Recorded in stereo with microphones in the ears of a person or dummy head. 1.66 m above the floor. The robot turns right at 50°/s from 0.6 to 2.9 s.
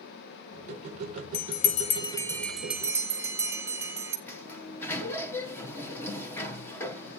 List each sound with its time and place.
1.3 s a bell: 55° left (ahead or behind), 0.6 m; by 4.2 s 15° right (ahead or behind), 0.6 m
4.3 s a sliding door: 10° left (ahead or behind), 1.1 m